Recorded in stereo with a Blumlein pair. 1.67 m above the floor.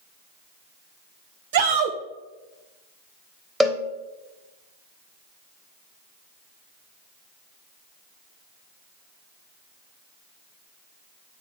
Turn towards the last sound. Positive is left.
turn(degrees=-10)